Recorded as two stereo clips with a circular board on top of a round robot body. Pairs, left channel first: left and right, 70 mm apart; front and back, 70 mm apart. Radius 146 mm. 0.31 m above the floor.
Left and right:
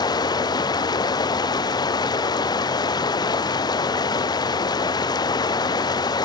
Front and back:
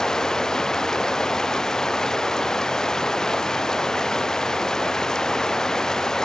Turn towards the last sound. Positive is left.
turn(degrees=80)